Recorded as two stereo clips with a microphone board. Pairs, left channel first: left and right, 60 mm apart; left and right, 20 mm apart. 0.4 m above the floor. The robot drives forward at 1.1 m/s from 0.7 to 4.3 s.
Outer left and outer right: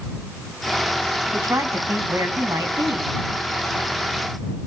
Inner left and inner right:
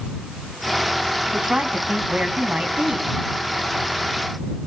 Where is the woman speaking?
50° right (ahead or behind), 3 m; by 3.1 s 70° right (ahead or behind), 2.5 m.